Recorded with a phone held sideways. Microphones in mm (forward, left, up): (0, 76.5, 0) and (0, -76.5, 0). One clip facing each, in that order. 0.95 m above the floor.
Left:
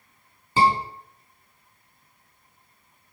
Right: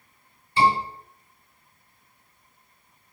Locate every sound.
0.6 s a scream: 90° left, 7.5 m